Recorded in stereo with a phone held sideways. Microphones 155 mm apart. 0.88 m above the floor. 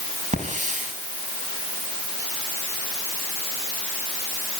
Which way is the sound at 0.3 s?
50° right (ahead or behind).